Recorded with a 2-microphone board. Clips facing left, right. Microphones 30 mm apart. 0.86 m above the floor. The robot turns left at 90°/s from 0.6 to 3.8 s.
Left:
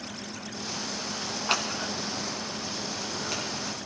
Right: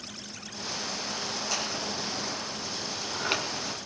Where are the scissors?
55° left (ahead or behind), 1.6 m; by 3.4 s 50° right (ahead or behind), 1.6 m.